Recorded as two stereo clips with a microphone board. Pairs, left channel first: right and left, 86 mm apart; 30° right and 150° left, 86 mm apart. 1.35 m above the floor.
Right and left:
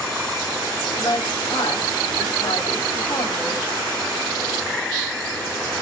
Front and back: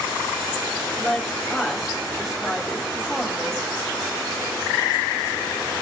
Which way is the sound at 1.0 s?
120° right.